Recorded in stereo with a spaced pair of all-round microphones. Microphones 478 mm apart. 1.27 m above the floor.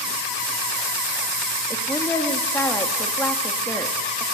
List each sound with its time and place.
1.7 s a woman speaking: 5° left (ahead or behind), 2.0 m